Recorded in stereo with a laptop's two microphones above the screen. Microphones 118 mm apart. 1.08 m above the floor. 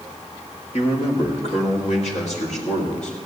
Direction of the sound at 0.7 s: 60° left (ahead or behind).